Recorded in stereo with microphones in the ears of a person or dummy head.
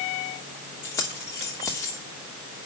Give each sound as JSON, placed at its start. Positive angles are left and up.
{"t": 0.8, "sound": "keys jangling", "side_deg": 20, "distance_m": 3.0}